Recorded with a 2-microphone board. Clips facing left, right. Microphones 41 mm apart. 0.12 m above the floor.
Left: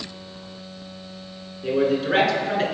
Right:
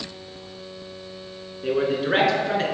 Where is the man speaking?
15° right (ahead or behind), 1.1 m; by 2.6 s centre (ahead or behind), 1.3 m.